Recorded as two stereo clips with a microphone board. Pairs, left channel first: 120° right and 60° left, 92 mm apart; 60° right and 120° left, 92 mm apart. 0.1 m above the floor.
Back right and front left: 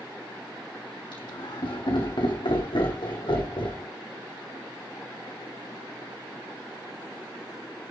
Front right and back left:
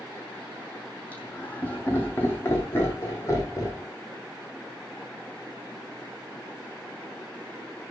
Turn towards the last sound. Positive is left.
turn(degrees=-110)